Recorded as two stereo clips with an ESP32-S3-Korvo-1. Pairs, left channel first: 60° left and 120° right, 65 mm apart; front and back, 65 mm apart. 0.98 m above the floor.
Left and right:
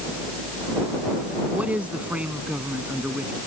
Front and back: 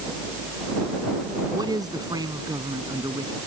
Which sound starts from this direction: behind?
A man speaking, at 1.5 s.